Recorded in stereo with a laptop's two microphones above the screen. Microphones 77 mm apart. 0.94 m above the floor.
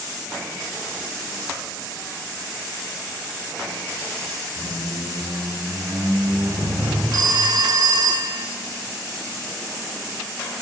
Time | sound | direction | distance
4.6 | a squeak | 70° right (ahead or behind) | 4 m
7.1 | a phone ringing | 65° right (ahead or behind) | 1.2 m